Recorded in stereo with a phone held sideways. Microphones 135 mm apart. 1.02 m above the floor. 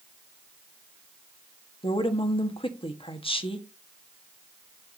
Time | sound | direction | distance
1.8 | a woman speaking | 40° left (ahead or behind) | 1.4 m